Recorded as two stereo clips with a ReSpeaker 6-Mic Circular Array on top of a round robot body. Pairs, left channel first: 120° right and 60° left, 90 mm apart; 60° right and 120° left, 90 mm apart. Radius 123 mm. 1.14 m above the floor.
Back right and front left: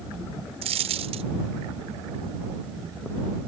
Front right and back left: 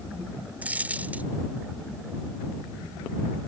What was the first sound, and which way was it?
A dropped coin, 45° left.